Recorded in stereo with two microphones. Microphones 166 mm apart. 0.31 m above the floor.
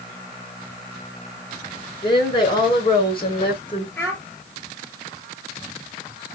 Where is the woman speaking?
30° left (ahead or behind), 5.5 m.